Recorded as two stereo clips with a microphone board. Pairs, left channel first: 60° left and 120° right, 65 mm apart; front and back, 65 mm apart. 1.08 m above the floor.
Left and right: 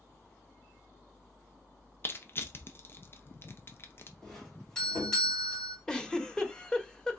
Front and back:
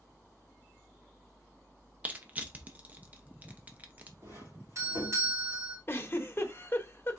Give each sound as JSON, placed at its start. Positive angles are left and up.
{"t": 2.0, "sound": "crushing", "azimuth_deg": 115, "distance_m": 0.7}
{"t": 4.2, "sound": "a doorbell", "azimuth_deg": 135, "distance_m": 3.5}
{"t": 5.9, "sound": "a giggle", "azimuth_deg": -10, "distance_m": 0.9}